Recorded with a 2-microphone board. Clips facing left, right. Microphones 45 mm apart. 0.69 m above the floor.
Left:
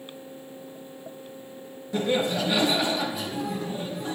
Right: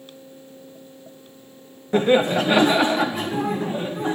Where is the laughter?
45° right (ahead or behind), 0.8 m.